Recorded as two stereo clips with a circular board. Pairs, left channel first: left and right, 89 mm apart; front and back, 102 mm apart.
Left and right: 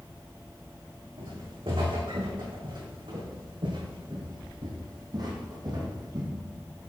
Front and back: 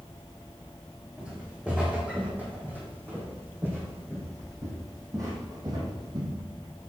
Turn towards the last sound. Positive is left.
turn(degrees=-135)